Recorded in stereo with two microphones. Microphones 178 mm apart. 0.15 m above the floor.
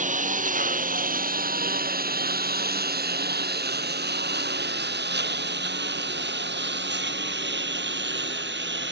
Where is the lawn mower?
45° right (ahead or behind); by 8.9 s 85° right.